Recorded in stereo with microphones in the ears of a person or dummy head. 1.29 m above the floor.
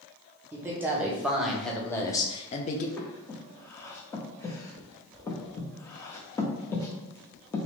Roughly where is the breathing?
Centre.